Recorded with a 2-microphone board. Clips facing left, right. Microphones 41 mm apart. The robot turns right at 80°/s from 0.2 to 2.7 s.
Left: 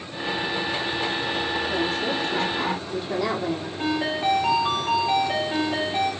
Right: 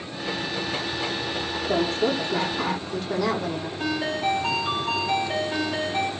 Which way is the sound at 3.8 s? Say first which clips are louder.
Left 1 dB; 35° left (ahead or behind).